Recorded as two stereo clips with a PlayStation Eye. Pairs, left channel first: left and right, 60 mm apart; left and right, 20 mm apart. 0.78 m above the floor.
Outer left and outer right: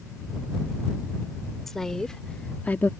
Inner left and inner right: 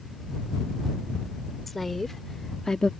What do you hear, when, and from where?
1.7 s a woman speaking: 5° left (ahead or behind); by 2.9 s 35° left (ahead or behind)